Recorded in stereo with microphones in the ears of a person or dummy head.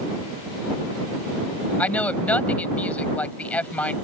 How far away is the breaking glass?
No breaking glass in this recording.